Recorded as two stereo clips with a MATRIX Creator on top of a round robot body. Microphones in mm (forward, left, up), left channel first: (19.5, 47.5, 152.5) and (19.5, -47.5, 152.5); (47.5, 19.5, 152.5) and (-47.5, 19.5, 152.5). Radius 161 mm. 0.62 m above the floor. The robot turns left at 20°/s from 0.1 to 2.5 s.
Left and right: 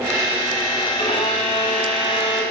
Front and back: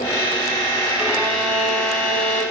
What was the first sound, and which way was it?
A violin, 100° left.